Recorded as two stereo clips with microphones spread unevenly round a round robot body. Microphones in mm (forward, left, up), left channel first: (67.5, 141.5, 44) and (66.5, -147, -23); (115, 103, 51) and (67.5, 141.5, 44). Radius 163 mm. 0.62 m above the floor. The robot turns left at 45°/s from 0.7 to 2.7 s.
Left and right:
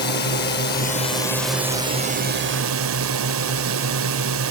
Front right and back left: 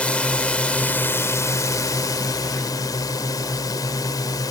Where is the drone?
30° left; by 4.5 s 60° right.